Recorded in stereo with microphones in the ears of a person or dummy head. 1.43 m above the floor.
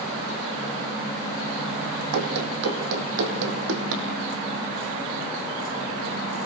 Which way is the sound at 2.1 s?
65° right (ahead or behind).